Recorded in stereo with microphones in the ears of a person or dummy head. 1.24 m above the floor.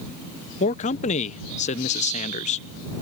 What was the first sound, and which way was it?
A man speaking, 35° left (ahead or behind).